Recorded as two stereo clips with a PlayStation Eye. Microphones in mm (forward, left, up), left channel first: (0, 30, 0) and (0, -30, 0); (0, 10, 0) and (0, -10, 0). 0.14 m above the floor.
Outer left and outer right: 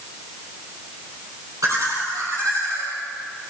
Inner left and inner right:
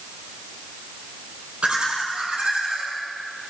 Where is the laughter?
70° right (ahead or behind), 5 m; by 2.9 s 65° right (ahead or behind), 6 m.